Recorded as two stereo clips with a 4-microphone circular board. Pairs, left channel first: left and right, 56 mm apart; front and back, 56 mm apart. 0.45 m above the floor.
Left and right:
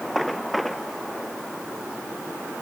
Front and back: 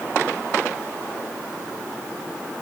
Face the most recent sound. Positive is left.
No sound to turn to.